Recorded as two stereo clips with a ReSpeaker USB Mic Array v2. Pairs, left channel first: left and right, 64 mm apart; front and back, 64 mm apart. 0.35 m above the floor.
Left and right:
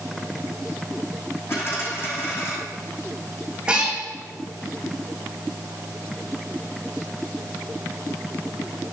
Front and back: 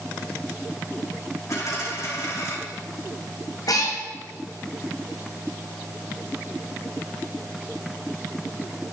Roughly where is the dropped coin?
Ahead left.